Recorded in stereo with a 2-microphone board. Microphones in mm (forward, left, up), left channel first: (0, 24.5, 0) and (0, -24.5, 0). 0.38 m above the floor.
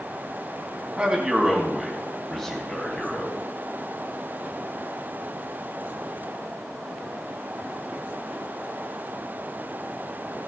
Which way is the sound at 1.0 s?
20° right (ahead or behind).